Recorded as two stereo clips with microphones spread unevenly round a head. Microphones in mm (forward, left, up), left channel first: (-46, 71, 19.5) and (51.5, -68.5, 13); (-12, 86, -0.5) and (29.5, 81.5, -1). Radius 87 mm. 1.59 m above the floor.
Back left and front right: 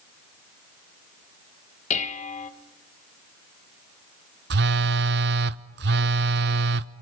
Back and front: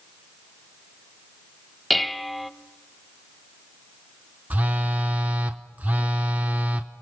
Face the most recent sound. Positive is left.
turn(degrees=-70)